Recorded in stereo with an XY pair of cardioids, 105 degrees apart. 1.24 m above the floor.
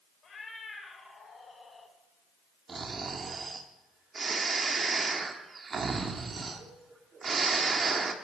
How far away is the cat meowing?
About 3 m.